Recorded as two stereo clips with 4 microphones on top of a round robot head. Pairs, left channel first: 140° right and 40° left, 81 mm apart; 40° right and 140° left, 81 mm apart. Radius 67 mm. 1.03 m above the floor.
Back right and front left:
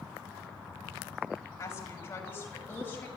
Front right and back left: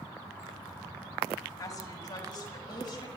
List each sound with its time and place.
1.6 s a woman speaking: 80° right, 6 m; by 3.1 s 75° right, 6.5 m